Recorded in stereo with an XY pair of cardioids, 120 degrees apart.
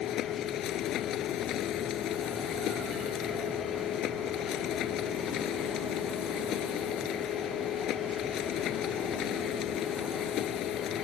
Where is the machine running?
60° left.